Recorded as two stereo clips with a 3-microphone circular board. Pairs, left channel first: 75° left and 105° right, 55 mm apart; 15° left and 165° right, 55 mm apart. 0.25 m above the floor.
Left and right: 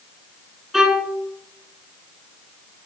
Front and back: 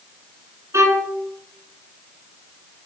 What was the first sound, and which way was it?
A violin, 175° left.